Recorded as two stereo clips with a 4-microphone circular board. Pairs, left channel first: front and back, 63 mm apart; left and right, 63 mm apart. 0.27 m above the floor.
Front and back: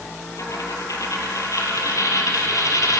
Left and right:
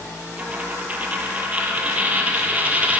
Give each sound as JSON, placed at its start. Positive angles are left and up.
{"t": 0.4, "sound": "a dropped coin", "azimuth_deg": -25, "distance_m": 1.6}